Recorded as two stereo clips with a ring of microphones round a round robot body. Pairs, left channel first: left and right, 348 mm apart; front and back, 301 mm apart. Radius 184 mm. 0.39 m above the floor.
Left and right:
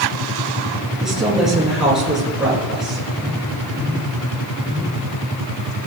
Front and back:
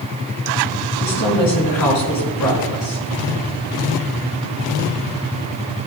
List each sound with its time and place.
1.0 s a woman speaking: straight ahead, 7 m